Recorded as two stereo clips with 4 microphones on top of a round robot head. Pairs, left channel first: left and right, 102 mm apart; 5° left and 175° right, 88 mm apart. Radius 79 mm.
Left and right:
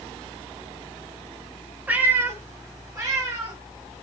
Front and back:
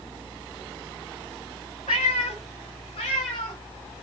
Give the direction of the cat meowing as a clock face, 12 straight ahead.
1 o'clock.